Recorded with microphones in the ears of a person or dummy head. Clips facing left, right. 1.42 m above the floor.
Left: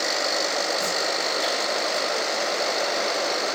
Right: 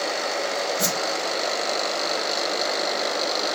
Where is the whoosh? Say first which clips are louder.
Right 1 dB; 70° right (ahead or behind), 0.7 m.